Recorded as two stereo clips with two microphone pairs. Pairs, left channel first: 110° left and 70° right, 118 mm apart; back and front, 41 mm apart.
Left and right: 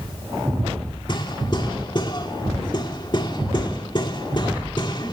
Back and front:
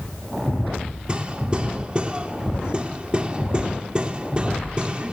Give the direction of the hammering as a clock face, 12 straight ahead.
10 o'clock.